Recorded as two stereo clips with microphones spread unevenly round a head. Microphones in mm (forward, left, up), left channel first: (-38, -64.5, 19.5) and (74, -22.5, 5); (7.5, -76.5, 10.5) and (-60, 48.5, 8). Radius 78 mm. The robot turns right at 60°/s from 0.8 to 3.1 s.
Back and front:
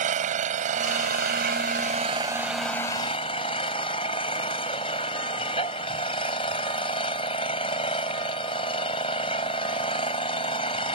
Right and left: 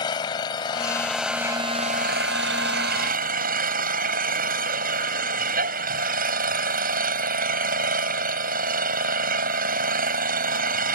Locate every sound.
0.0 s an engine running: 5° left; by 11.0 s 140° left